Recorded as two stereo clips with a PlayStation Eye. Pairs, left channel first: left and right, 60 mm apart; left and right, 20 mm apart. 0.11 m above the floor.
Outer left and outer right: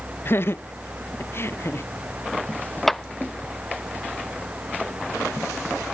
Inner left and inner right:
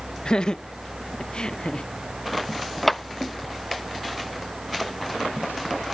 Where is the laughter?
40° left (ahead or behind); by 1.9 s 45° left (ahead or behind).